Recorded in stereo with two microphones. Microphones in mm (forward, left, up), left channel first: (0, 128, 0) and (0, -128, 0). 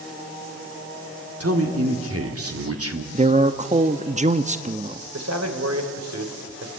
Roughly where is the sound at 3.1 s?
Right.